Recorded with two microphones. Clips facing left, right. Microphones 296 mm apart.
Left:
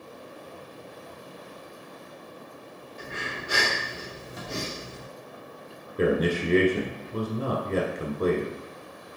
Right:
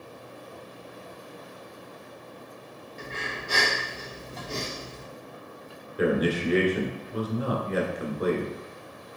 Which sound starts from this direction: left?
A man speaking, at 6.0 s.